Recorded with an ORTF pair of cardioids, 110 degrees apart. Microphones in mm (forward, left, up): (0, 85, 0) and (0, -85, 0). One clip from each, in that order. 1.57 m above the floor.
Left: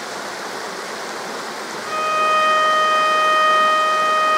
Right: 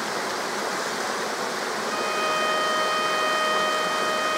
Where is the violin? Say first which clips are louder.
Left 9 dB; 30° left, 0.6 m.